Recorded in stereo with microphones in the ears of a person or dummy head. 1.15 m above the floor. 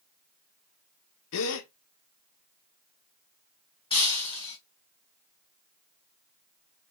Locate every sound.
1.3 s a gasp: 80° left, 0.9 m
3.9 s breaking glass: 30° left (ahead or behind), 3 m